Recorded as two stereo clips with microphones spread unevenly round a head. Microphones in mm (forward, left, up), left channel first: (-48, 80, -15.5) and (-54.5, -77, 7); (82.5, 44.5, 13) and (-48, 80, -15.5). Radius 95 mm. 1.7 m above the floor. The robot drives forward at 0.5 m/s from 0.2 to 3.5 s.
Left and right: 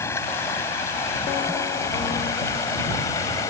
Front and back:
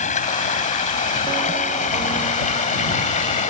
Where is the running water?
10° left.